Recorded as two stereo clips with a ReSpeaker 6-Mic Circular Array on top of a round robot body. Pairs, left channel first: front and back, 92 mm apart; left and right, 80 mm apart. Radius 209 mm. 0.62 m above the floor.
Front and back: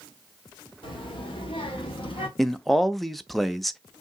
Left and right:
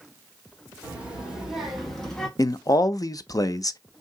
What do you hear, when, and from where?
0.8 s a child speaking: 20° right, 1.6 m; by 2.3 s 10° left, 1.4 m
2.4 s a man speaking: 90° left, 0.6 m